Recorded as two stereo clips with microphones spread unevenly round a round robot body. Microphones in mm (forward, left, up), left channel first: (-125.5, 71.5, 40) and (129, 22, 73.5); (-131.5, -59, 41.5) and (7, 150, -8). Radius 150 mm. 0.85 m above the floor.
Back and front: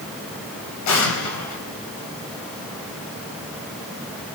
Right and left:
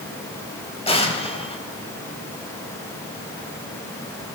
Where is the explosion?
165° left, 5 m.